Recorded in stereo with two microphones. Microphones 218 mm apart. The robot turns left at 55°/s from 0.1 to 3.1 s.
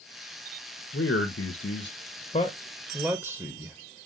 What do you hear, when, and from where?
0.9 s a man speaking: 110° left, 0.7 m; by 3.8 s 5° right, 0.7 m